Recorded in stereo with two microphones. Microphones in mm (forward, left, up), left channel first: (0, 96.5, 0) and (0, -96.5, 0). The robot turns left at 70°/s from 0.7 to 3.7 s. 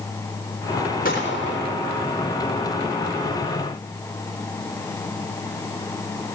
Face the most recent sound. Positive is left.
turn(degrees=-55)